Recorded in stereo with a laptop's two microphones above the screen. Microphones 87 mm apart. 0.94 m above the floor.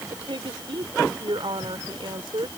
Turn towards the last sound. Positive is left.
turn(degrees=-70)  # may be behind; listen again after turning